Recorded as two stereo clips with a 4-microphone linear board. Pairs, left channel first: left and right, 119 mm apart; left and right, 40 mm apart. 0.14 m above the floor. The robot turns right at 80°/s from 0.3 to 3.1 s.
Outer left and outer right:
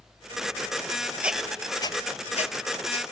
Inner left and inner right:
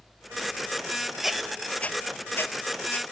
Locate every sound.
1.2 s a squeak: 10° right (ahead or behind), 0.7 m; by 3.0 s 45° left (ahead or behind), 0.7 m